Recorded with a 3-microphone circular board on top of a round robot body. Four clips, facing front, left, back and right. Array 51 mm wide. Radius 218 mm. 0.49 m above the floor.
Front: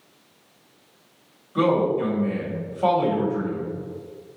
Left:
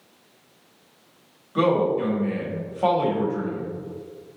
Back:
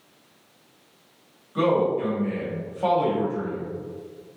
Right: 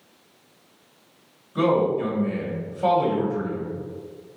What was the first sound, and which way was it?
A man speaking, 85° left.